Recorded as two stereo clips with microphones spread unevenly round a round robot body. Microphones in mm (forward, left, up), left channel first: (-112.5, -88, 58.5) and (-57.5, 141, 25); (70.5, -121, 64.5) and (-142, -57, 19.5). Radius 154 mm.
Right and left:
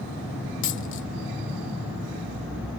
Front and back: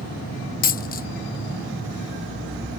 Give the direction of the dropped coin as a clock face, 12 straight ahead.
2 o'clock.